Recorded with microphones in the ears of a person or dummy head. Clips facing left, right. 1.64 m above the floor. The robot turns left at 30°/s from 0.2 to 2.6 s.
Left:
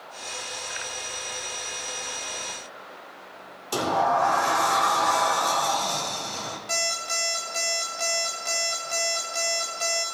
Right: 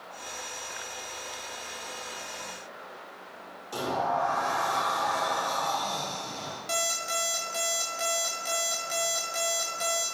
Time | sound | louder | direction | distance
3.7 | a sliding door | left 5 dB | 75° left (ahead or behind) | 1.5 m
6.7 | an alarm clock | right 2 dB | 15° right (ahead or behind) | 1.5 m